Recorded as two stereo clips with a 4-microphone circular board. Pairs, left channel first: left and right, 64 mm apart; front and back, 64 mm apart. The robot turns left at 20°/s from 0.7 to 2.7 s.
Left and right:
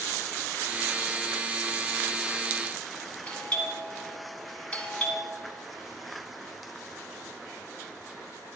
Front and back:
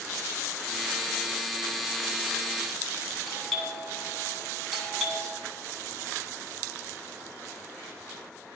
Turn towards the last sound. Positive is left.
turn(degrees=90)